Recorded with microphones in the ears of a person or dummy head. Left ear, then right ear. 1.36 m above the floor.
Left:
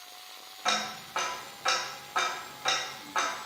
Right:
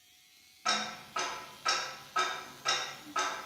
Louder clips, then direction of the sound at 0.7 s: Left 3 dB; 30° left (ahead or behind).